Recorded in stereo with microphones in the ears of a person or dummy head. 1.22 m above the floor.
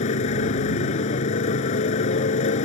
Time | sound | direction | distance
0.0 | a motorcycle | 50° left (ahead or behind) | ?